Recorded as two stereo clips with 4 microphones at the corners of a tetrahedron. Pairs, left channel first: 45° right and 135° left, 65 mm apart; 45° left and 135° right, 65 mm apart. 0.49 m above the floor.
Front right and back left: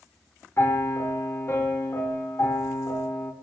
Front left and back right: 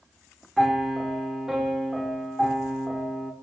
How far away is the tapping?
I don't hear tapping.